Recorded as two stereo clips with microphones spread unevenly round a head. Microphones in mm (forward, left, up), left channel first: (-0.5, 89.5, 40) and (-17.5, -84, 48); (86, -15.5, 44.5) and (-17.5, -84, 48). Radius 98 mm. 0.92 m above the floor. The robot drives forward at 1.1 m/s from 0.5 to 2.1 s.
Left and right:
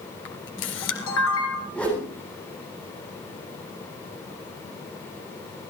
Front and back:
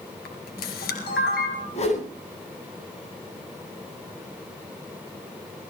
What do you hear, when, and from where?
0.2 s a camera shutter: 55° left, 3 m; by 1.6 s 80° left, 2.5 m
1.7 s a whoosh: straight ahead, 9.5 m